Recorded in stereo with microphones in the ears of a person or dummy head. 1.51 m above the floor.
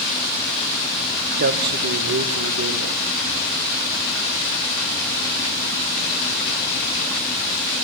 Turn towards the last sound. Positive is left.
turn(degrees=-80)